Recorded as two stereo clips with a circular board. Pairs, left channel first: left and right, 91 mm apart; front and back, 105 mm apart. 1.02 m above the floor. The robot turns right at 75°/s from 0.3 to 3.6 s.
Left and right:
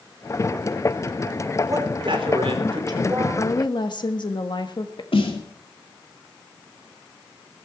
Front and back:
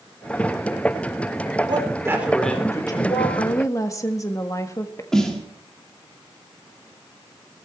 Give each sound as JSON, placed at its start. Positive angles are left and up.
{"t": 1.7, "sound": "a man speaking", "azimuth_deg": -145, "distance_m": 4.0}
{"t": 3.4, "sound": "a woman speaking", "azimuth_deg": 40, "distance_m": 1.7}
{"t": 5.1, "sound": "a snare drum", "azimuth_deg": 85, "distance_m": 2.5}